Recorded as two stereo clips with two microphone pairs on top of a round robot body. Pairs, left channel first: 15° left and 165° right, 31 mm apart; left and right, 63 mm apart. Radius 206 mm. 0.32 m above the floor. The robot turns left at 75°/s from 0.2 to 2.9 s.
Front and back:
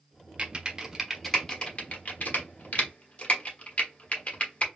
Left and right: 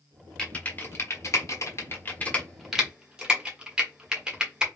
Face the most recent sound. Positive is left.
turn(degrees=-20)